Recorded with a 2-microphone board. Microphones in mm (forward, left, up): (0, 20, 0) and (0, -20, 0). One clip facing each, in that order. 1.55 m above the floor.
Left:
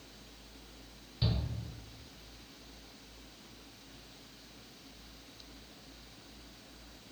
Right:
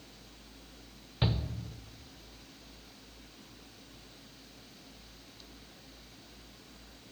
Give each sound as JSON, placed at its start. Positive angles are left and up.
{"t": 1.2, "sound": "a shout", "side_deg": -45, "distance_m": 0.6}